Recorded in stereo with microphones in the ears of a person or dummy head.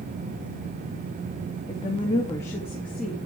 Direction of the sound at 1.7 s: 25° left (ahead or behind).